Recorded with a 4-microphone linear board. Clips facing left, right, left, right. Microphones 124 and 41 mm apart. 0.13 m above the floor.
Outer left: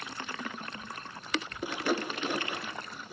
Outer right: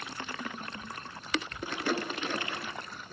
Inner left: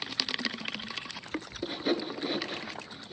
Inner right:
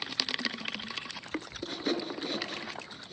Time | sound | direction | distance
1.6 | sawing | 10° left (ahead or behind) | 2 m